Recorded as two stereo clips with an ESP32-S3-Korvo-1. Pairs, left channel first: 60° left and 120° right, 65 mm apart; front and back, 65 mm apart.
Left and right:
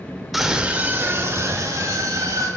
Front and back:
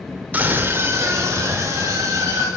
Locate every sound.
0.3 s a scream: 155° left, 0.9 m; by 2.5 s 140° right, 2.0 m